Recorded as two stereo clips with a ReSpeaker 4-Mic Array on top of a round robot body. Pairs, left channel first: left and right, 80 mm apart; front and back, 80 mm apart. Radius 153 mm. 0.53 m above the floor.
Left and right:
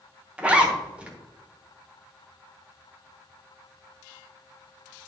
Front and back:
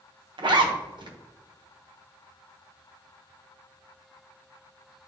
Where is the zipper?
165° right, 1.2 m.